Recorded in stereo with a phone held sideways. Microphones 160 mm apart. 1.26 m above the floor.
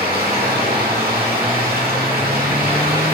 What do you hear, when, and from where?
0.0 s running water: 85° right, 2 m